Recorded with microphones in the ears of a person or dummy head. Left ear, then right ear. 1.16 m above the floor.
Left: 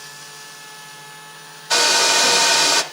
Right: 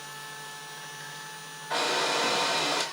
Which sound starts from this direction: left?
A hair dryer, at 1.7 s.